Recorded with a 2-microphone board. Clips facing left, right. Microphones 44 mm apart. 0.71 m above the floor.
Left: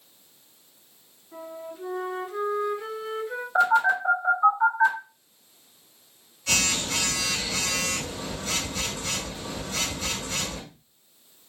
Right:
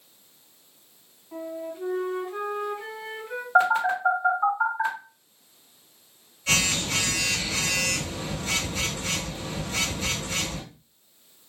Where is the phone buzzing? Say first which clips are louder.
Even; 30° right (ahead or behind), 1.8 m.